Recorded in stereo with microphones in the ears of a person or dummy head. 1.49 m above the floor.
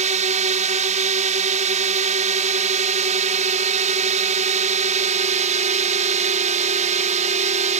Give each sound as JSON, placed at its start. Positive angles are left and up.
{"t": 0.0, "sound": "a drone", "side_deg": -40}